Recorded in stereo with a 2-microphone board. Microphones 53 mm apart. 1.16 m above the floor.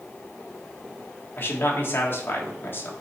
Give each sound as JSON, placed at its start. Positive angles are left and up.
{"t": 1.4, "sound": "a man speaking", "side_deg": 40, "distance_m": 1.7}